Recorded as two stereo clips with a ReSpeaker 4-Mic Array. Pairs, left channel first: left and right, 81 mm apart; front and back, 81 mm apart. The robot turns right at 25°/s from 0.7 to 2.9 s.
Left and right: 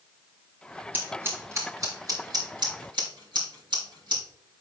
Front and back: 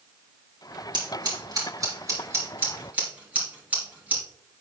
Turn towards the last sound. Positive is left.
turn(degrees=-110)